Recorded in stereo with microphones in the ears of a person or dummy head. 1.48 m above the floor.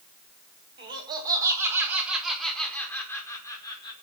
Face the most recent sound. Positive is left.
turn(degrees=25)  # may be behind; listen again after turning